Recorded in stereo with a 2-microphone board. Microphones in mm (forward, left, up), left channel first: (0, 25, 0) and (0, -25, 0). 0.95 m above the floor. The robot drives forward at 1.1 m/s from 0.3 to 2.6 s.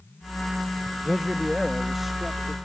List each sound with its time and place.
1.1 s a man speaking: 5° right (ahead or behind); by 2.5 s centre (ahead or behind)